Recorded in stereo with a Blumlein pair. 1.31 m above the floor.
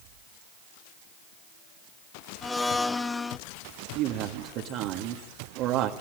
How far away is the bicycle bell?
I don't hear a bicycle bell.